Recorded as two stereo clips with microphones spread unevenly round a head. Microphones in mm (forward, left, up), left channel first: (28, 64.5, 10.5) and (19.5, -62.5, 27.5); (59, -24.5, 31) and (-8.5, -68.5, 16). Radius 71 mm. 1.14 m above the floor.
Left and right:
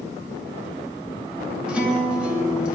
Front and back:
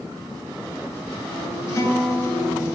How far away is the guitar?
About 2.5 m.